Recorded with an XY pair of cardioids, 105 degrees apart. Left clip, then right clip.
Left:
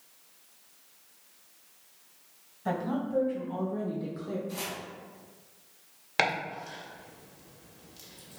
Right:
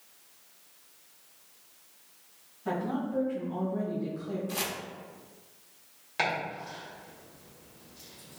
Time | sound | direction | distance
2.6 | a woman speaking | 65° left | 1.6 m
4.5 | chopping | 50° right | 0.6 m
6.2 | chopping | 65° left | 1.4 m